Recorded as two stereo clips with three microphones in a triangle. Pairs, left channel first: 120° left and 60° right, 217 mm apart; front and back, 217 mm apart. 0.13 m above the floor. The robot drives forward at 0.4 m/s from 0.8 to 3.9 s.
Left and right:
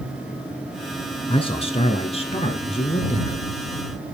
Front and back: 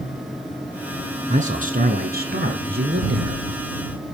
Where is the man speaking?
165° left, 1.4 m; by 3.5 s 170° left, 2 m.